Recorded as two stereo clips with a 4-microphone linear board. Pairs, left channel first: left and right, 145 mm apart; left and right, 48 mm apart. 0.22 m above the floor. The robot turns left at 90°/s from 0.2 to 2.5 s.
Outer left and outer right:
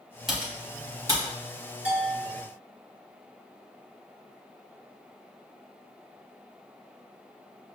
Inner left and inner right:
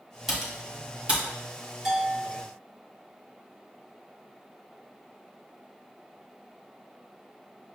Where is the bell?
170° right, 1.0 m; by 2.5 s 135° left, 1.0 m.